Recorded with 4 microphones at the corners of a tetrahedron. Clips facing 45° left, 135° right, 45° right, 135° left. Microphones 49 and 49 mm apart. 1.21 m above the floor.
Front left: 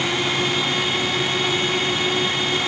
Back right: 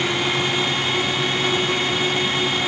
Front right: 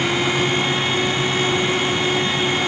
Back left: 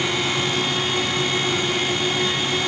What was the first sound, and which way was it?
Only background noise.